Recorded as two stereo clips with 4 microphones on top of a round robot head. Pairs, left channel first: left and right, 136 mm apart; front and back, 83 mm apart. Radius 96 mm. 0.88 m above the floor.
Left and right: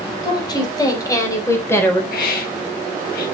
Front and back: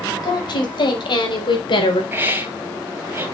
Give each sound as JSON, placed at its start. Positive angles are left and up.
{"t": 0.2, "sound": "a woman speaking", "azimuth_deg": 30, "distance_m": 5.0}
{"t": 2.1, "sound": "a hiss", "azimuth_deg": 115, "distance_m": 3.0}